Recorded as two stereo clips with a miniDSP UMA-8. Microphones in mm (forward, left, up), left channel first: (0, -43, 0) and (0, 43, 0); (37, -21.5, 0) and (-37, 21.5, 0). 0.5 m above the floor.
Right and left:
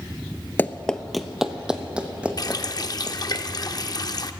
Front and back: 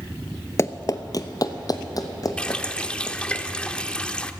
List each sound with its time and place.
0.6 s running footsteps: 45° right, 0.5 m; by 3.4 s 15° left, 2.5 m
2.4 s a running tap: 105° right, 0.5 m